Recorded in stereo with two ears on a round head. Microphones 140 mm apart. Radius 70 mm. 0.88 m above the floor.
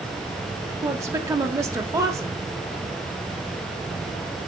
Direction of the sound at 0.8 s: 20° right (ahead or behind).